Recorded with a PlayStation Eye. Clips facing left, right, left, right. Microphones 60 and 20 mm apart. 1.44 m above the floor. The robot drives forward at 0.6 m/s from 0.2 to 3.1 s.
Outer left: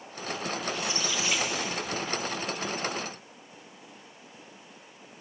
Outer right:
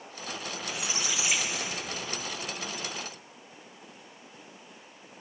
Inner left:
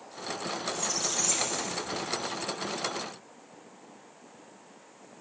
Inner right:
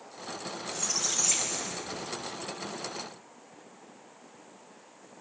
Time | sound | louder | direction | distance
0.7 | a squeak | even, inner right 1 dB | 10° right (ahead or behind) | 0.7 m